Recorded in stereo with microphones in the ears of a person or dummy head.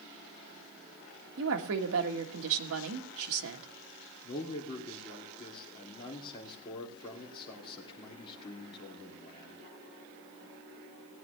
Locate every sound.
1.4 s a woman speaking: 75° right (ahead or behind), 1.4 m
4.2 s a man speaking: 25° left (ahead or behind), 2.5 m